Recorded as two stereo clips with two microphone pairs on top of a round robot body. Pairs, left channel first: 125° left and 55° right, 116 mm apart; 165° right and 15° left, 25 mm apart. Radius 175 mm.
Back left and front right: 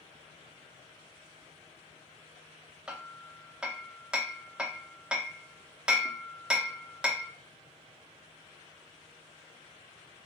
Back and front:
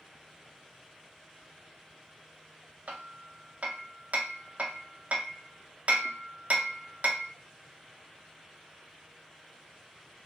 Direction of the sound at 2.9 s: 25° left.